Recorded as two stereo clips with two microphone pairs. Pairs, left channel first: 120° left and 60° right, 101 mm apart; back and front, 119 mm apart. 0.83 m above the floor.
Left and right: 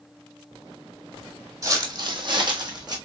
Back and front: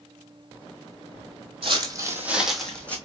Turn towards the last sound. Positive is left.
turn(degrees=-100)